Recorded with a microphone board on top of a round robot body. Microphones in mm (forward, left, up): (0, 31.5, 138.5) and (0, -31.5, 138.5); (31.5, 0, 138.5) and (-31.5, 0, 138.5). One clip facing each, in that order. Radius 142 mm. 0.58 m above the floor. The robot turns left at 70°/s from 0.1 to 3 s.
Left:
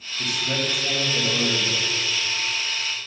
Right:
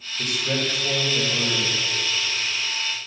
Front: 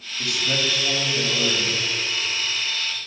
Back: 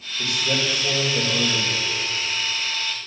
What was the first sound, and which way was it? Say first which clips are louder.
A man speaking: right 1 dB, back 1 dB; 115° right.